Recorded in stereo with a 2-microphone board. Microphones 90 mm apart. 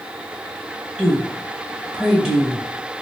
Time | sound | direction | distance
1.0 | a woman speaking | 10° right (ahead or behind) | 0.9 m